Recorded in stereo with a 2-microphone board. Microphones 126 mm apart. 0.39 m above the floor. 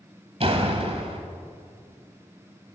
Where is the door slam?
50° right (ahead or behind), 1.3 m.